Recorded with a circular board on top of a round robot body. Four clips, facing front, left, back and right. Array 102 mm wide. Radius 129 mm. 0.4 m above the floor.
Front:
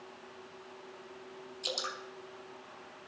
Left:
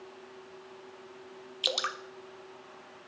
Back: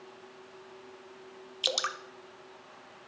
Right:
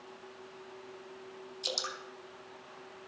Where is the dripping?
135° left, 1.1 m.